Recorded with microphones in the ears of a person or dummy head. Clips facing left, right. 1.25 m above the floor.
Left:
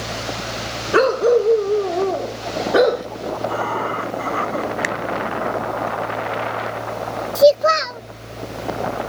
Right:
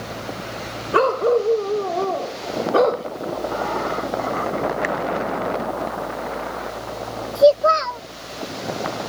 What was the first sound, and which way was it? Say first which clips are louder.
A dog barking: left 3 dB; 20° left (ahead or behind).